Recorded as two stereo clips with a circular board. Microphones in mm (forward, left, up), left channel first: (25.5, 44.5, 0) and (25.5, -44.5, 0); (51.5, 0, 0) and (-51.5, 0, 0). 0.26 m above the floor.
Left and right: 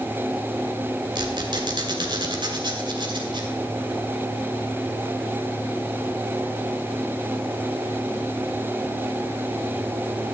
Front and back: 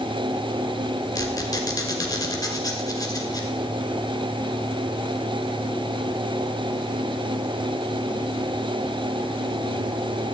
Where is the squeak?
50° right, 1.7 m.